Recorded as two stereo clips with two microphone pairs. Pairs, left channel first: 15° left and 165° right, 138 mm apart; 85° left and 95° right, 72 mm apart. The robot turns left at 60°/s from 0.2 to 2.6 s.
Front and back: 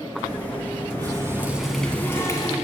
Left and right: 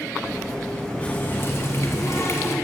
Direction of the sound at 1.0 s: 145° left.